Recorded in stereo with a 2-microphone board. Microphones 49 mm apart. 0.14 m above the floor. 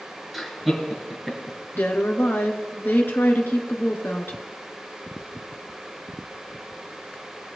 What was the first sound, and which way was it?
Laughter, 5° left (ahead or behind).